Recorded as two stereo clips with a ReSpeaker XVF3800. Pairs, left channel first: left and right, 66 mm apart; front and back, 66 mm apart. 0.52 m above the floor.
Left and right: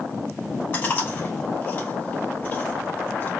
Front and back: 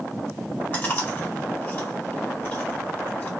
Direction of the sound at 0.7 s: 45° left.